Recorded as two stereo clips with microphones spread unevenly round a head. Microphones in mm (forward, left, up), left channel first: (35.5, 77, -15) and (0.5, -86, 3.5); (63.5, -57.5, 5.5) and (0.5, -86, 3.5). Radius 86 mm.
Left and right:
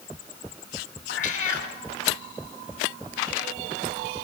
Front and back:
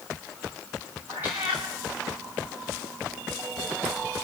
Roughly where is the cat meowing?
Behind left.